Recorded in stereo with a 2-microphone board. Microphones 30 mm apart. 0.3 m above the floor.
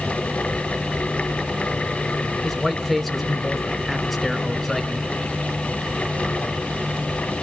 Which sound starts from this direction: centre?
A man speaking, at 2.4 s.